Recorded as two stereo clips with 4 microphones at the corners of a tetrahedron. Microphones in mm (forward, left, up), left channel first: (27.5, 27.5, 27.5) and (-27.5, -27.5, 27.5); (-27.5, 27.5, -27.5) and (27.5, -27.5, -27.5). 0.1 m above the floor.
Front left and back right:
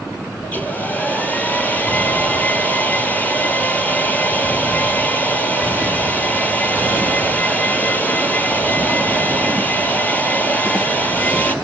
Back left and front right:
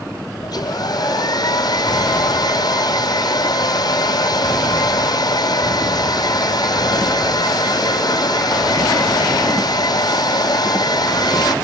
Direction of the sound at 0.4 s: 115° left.